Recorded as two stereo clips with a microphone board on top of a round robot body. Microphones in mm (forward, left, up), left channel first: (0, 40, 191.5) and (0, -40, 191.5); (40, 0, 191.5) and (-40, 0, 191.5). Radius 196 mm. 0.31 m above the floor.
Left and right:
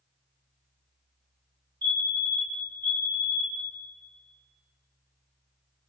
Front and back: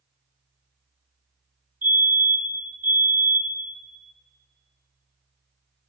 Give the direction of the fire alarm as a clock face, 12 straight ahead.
4 o'clock.